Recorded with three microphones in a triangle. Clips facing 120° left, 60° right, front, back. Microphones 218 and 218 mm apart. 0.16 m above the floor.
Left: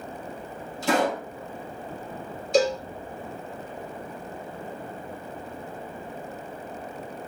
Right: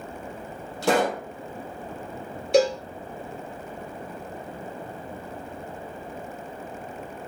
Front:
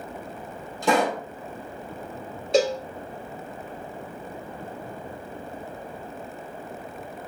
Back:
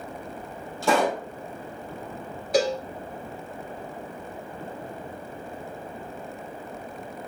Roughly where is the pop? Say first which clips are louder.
Right 1 dB, even; right.